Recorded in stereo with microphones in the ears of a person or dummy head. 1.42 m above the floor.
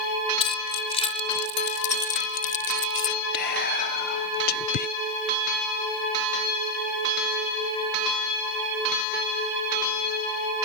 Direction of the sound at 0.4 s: 30° left (ahead or behind).